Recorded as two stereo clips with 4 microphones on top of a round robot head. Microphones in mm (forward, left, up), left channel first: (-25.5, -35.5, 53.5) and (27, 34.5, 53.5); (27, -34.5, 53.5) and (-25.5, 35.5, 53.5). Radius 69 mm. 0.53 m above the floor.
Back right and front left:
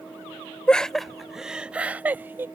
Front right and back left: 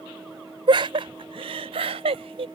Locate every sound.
0.7 s laughter: 155° left; by 2.5 s 120° left